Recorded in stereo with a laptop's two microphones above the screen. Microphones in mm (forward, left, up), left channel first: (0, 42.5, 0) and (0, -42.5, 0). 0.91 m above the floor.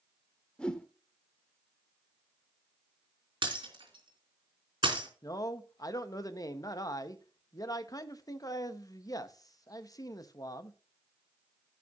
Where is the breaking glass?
70° right (ahead or behind), 3.5 m.